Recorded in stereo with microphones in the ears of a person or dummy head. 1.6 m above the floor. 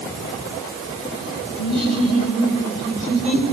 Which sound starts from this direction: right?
Laughter, at 1.6 s.